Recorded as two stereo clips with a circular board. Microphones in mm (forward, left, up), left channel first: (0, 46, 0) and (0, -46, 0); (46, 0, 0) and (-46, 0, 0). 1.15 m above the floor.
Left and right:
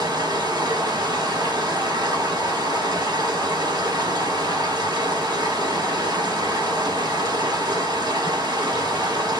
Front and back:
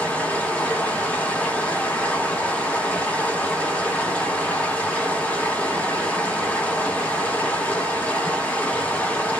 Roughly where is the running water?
Right.